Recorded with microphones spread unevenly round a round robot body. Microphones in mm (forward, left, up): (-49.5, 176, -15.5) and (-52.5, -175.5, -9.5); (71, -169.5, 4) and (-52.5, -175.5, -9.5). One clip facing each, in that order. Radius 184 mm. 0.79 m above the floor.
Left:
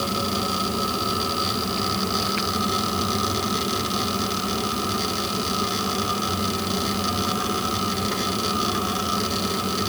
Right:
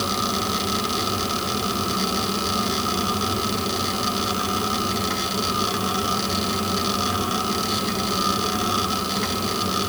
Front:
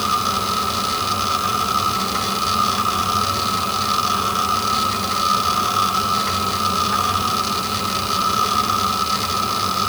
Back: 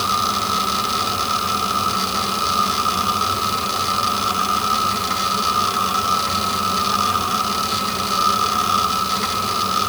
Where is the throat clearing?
I don't hear throat clearing.